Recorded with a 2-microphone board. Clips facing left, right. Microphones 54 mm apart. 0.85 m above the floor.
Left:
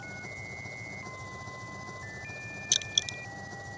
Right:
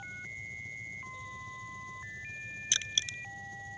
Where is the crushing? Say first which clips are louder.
Left 1 dB; 25° right (ahead or behind).